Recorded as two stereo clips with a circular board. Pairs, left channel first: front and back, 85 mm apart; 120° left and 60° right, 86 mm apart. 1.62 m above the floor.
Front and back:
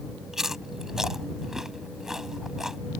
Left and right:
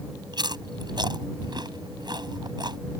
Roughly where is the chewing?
Right.